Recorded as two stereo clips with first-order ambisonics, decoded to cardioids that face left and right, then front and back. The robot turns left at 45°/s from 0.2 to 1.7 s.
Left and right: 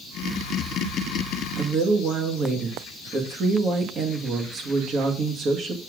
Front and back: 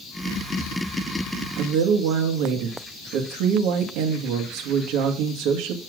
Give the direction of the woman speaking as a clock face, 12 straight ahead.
5 o'clock.